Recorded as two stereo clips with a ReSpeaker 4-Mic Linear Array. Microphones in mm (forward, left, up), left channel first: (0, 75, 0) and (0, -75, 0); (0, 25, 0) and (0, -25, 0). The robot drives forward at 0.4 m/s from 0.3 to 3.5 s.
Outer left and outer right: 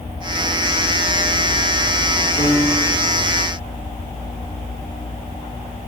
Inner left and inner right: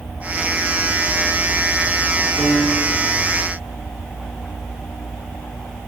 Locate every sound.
2.4 s a piano: 15° right (ahead or behind), 4 m; by 3.1 s 10° right (ahead or behind), 4.5 m